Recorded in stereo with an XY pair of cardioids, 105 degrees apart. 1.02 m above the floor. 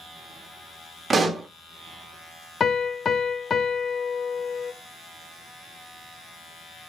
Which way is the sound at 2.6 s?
40° left.